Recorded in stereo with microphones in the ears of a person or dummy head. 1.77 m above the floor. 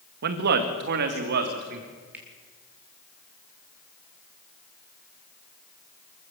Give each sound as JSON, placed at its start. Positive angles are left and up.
{"t": 0.2, "sound": "a man speaking", "side_deg": -55, "distance_m": 1.8}
{"t": 2.1, "sound": "a finger snap", "side_deg": -10, "distance_m": 3.5}